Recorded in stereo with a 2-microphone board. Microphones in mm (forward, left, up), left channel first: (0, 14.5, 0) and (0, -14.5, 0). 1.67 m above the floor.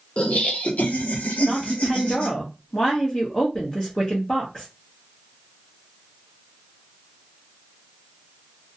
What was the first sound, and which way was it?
Laughter, 40° left (ahead or behind).